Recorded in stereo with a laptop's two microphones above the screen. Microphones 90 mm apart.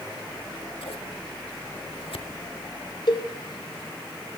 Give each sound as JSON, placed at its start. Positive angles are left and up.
{"t": 0.3, "sound": "scissors", "side_deg": 80, "distance_m": 1.7}
{"t": 3.1, "sound": "a cowbell", "side_deg": 55, "distance_m": 2.0}